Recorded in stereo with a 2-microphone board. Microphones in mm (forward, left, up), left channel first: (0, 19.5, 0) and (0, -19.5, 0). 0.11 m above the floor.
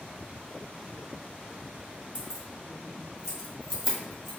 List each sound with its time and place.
2.1 s keys jangling: 25° right (ahead or behind), 1.4 m; by 4.3 s centre (ahead or behind), 2.5 m